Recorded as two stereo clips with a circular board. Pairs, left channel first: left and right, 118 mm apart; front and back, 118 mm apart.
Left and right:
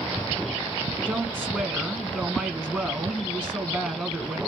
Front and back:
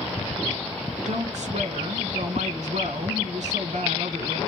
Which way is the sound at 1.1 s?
175° left.